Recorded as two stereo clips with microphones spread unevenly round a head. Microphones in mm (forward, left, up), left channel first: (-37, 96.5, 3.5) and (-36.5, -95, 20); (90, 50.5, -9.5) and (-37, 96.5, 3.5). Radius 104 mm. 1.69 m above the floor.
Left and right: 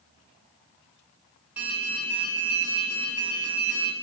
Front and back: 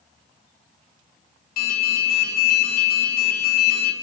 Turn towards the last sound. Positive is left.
turn(degrees=-5)